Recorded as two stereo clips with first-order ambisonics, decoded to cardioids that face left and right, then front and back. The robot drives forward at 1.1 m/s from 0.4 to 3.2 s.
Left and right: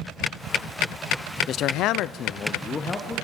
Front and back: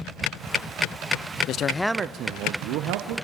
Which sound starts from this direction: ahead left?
A man speaking, at 1.5 s.